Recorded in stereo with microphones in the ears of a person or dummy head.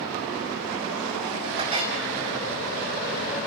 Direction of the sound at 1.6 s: 30° right (ahead or behind).